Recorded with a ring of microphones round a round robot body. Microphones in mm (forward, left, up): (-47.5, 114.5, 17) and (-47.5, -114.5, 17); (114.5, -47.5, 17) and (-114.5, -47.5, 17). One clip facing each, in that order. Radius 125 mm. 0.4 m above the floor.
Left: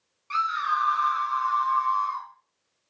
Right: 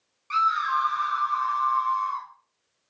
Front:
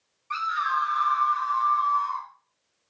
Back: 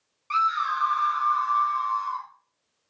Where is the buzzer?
I don't hear a buzzer.